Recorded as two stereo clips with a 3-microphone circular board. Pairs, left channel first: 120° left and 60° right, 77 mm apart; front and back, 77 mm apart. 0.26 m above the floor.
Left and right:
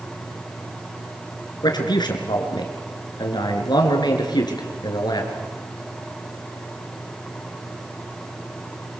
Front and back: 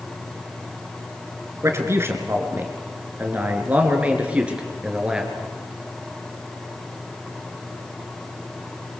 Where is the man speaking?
130° left, 4 m; by 5.3 s 100° left, 4.5 m.